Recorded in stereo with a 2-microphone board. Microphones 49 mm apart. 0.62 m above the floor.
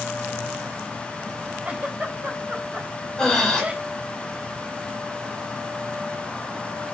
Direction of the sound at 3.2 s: 15° left (ahead or behind).